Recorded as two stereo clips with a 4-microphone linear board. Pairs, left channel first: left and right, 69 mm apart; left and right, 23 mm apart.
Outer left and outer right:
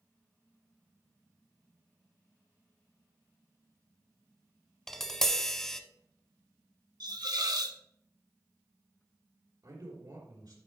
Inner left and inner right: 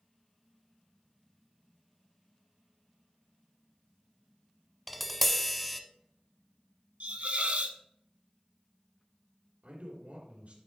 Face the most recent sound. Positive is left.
turn(degrees=-70)  # may be behind; listen again after turning